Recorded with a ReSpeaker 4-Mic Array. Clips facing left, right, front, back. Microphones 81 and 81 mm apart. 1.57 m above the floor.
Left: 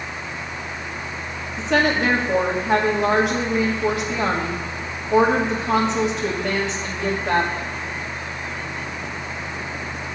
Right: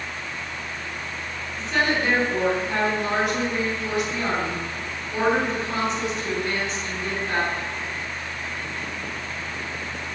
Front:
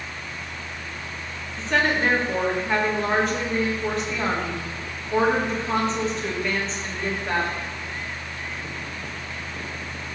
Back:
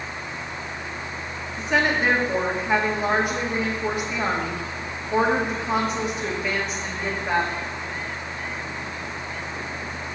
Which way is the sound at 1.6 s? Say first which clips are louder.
Left 4 dB, even; 100° left.